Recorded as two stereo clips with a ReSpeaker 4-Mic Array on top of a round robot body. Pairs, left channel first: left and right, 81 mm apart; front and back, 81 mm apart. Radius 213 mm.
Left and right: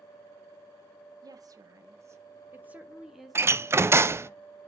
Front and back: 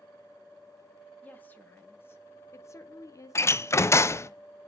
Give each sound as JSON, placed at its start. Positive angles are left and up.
{"t": 1.2, "sound": "a woman speaking", "azimuth_deg": -70, "distance_m": 1.5}
{"t": 3.4, "sound": "a door slam", "azimuth_deg": -45, "distance_m": 0.6}